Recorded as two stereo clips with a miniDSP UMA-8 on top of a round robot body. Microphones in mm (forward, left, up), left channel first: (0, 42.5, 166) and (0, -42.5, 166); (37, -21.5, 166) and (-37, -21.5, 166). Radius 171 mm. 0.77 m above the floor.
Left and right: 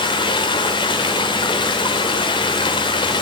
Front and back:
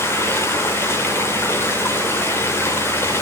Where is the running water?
60° left, 0.8 m.